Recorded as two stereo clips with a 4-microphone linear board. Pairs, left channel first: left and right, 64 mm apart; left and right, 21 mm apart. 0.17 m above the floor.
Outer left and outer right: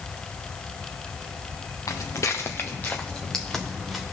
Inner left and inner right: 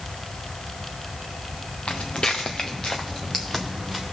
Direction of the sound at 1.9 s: 65° left (ahead or behind).